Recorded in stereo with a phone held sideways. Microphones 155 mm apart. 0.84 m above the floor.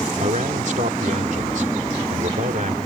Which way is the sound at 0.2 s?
55° right (ahead or behind).